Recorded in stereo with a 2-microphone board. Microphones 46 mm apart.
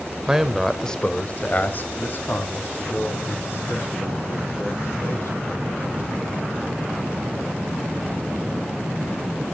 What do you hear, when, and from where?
0.3 s a man speaking: 15° right (ahead or behind), 0.8 m; by 5.5 s 70° left (ahead or behind), 4 m